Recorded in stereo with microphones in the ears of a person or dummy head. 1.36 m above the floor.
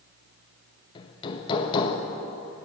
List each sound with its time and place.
0.9 s hammering: 20° left (ahead or behind), 0.9 m